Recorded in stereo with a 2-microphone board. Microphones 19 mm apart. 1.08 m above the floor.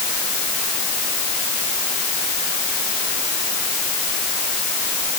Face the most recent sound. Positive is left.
No sound to turn to.